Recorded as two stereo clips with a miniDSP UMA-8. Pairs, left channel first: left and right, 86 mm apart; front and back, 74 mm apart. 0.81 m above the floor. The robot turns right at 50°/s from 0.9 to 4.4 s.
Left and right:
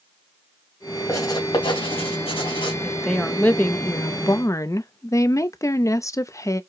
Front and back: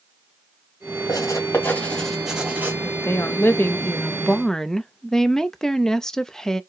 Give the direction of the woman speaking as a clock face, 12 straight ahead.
12 o'clock.